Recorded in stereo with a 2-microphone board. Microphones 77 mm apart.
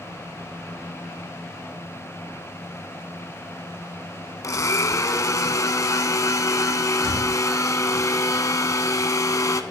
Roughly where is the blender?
Left.